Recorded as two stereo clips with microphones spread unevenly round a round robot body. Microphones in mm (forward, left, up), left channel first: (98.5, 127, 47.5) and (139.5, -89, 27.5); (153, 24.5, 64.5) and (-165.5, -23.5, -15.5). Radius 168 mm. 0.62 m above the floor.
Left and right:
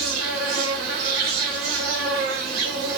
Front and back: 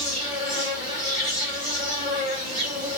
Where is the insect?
100° right, 1.2 m.